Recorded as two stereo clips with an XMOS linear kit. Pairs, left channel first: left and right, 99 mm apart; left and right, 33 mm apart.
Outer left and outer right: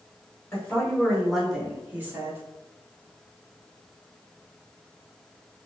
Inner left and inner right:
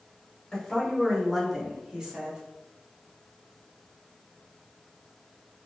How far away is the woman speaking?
About 0.9 m.